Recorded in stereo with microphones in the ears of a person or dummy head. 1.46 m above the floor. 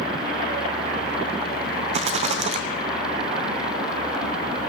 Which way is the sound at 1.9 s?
35° right (ahead or behind).